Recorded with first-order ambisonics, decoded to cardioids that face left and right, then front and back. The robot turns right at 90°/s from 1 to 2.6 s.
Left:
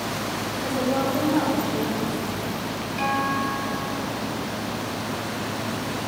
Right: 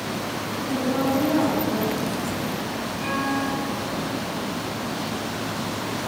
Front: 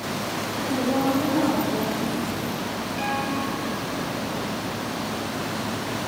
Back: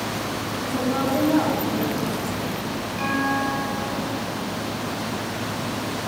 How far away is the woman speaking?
About 5 m.